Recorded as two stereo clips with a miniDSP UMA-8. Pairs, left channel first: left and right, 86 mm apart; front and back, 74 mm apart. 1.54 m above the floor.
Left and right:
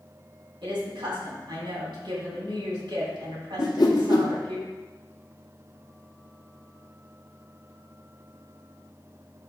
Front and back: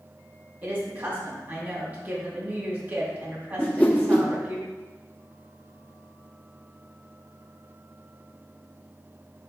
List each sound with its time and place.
0.6 s a woman speaking: 115° right, 3 m
3.6 s a whoosh: 60° left, 0.8 m